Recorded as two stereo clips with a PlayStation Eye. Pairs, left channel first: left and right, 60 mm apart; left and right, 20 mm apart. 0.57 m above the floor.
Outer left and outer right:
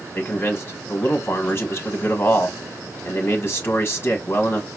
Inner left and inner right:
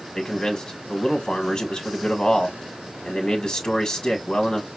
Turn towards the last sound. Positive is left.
turn(degrees=40)  # may be behind; listen again after turning